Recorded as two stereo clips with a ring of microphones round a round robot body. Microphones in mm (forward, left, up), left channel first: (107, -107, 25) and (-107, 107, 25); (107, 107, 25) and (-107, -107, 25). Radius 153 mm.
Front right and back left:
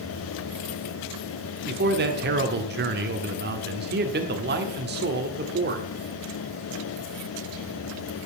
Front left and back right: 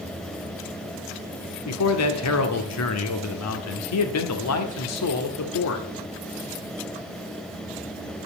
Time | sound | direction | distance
1.6 | a man speaking | 80° left | 1.3 m